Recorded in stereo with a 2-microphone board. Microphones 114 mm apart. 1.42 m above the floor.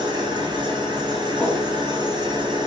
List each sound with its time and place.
0.0 s an engine running: 40° right (ahead or behind), 0.8 m
1.4 s a whoosh: 5° left (ahead or behind), 0.9 m